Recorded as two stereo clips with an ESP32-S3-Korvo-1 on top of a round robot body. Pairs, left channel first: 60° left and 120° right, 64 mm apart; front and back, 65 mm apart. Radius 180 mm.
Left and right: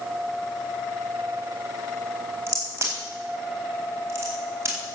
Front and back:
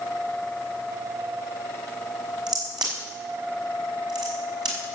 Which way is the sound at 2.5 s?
175° right.